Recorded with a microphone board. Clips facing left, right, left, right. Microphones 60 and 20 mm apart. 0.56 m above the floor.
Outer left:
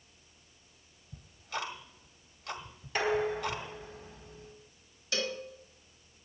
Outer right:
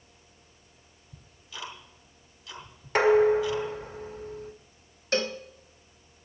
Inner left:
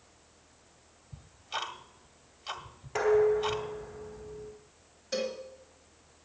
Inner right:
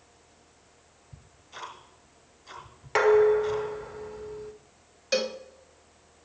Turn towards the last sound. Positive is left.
turn(degrees=-50)  # may be behind; listen again after turning